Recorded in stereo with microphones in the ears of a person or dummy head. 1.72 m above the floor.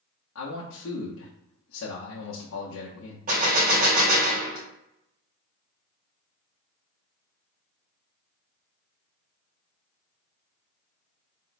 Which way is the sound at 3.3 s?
45° right (ahead or behind).